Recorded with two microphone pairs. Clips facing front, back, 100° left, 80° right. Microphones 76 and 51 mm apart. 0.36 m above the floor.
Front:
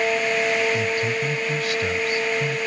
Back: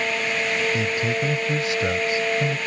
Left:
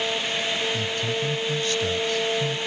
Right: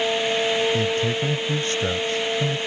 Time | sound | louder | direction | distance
0.7 | a man speaking | front 1 dB, right 4 dB | 120° right | ?